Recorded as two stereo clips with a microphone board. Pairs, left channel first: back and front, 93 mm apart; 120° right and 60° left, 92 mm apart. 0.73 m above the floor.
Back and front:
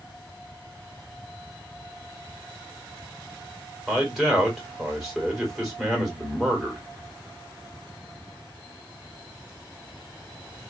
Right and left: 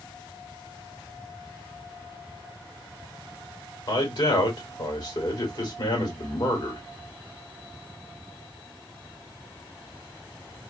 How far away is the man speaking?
About 2.5 m.